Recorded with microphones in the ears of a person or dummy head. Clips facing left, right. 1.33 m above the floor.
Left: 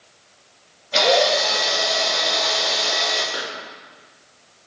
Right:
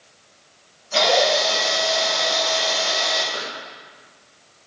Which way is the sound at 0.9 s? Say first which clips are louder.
Left 1 dB; 40° left (ahead or behind).